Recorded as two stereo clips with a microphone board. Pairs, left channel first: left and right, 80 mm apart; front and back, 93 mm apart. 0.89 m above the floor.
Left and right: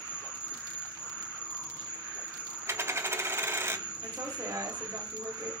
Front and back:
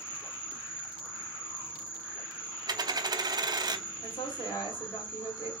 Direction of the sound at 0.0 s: 50° left.